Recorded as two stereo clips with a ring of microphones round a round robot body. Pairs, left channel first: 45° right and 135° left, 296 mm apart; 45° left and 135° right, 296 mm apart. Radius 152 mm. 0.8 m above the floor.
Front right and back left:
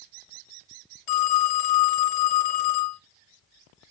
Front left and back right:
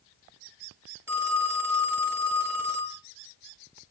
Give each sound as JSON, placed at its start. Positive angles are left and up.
{"t": 1.1, "sound": "a phone ringing", "azimuth_deg": -50, "distance_m": 1.5}